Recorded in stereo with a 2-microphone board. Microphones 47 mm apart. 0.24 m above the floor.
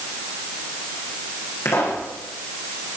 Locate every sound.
1.6 s a pop: 85° left, 6.5 m